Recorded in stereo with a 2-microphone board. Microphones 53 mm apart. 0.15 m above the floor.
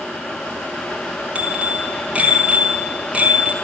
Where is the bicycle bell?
25° right (ahead or behind), 3.5 m.